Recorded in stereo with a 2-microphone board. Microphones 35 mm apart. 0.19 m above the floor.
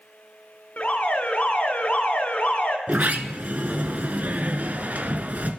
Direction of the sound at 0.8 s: 55° left (ahead or behind).